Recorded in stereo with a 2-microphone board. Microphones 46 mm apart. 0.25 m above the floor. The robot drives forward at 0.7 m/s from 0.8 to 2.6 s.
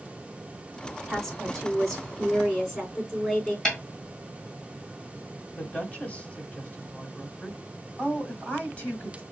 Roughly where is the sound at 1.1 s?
Centre.